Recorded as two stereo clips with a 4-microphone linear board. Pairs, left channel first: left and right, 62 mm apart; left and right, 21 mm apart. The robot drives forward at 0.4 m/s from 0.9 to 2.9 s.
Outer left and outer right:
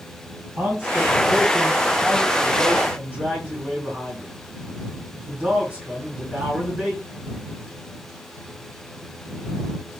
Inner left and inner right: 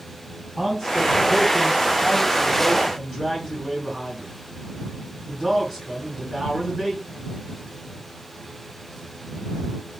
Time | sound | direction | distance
0.6 | a man speaking | 30° right (ahead or behind) | 2.5 m